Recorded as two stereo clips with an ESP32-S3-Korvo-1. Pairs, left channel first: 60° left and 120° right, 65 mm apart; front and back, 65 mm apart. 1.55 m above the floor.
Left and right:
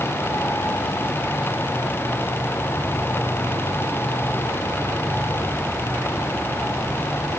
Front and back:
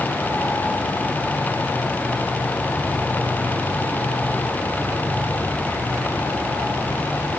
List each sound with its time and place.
Only background noise.